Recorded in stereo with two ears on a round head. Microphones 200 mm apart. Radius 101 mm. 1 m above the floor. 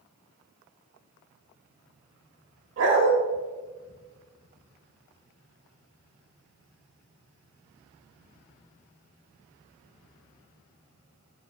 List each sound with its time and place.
2.8 s a dog barking: 60° right (ahead or behind), 1.2 m